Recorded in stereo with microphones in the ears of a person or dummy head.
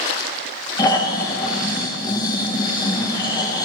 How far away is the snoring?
About 1.0 m.